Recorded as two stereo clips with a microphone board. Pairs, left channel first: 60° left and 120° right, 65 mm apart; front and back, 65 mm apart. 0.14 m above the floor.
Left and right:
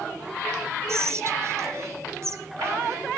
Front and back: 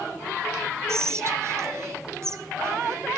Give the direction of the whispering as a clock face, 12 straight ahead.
5 o'clock.